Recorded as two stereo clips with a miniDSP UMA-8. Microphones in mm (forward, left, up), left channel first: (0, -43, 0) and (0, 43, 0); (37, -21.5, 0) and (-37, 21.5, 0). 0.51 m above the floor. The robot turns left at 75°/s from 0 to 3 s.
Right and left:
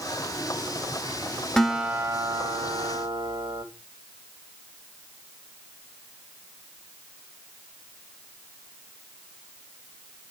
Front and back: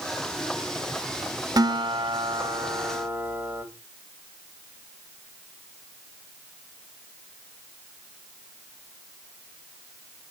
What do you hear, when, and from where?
1.6 s a guitar: 170° right, 1.2 m; by 3.6 s 80° left, 1.2 m